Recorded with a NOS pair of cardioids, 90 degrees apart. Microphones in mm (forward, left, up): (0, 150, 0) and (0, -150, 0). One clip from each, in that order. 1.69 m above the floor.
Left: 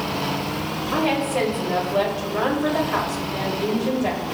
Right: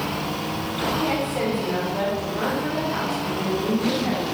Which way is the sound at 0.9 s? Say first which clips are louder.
Left 5 dB; 65° left.